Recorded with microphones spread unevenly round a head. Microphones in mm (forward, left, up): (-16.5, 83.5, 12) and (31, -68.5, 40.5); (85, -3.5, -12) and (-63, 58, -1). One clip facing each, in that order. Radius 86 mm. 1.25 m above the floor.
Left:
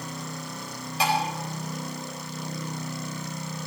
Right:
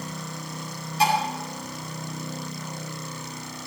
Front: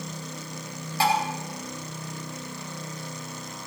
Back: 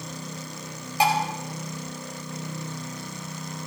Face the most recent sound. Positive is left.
turn(degrees=85)